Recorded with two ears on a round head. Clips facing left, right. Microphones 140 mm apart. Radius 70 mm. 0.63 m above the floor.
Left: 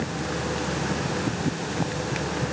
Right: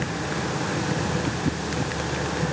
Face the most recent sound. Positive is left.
No sound to turn to.